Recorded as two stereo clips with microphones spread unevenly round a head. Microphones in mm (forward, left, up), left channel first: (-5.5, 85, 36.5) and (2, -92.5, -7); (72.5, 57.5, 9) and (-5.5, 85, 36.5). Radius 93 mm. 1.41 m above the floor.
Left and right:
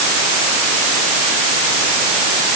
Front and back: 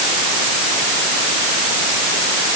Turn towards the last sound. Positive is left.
No sound to turn to.